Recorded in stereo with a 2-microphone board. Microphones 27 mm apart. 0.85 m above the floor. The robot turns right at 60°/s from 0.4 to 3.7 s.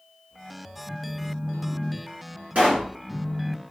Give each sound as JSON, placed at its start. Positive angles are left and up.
{"t": 0.9, "sound": "a phone buzzing", "azimuth_deg": -30, "distance_m": 0.7}
{"t": 2.5, "sound": "a pop", "side_deg": -60, "distance_m": 1.6}